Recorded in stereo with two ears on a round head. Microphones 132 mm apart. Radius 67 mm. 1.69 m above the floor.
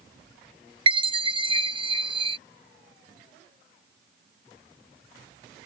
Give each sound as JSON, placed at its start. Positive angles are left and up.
{"t": 0.9, "sound": "a chime", "side_deg": -35}